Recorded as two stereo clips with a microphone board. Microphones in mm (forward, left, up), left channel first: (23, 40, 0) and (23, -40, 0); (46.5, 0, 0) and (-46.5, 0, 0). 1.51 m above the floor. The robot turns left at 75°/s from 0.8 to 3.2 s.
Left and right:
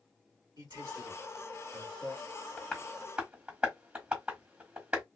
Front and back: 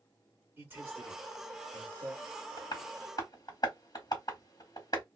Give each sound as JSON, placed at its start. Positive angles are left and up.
{"t": 0.6, "sound": "a man speaking", "azimuth_deg": -115, "distance_m": 1.8}
{"t": 2.6, "sound": "tapping", "azimuth_deg": 30, "distance_m": 1.6}